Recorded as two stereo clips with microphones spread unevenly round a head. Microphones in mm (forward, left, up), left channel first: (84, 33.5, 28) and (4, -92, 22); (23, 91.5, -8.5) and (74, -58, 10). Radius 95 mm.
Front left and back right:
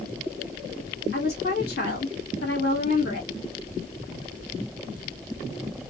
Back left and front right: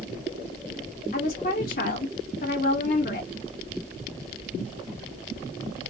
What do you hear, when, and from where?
1.1 s a woman speaking: 85° left, 1.4 m